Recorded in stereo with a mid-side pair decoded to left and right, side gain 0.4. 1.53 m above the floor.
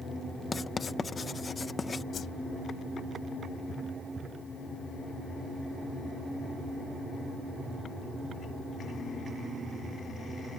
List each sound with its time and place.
0.5 s writing: 35° left
2.1 s a whoosh: 55° left